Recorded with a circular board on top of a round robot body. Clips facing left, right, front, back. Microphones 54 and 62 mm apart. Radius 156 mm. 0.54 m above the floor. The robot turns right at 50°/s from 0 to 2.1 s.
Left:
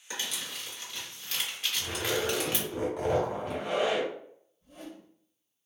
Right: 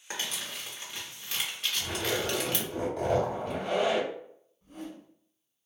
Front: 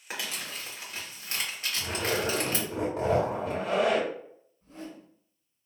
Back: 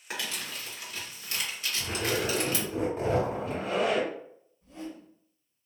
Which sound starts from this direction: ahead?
A zipper, at 1.8 s.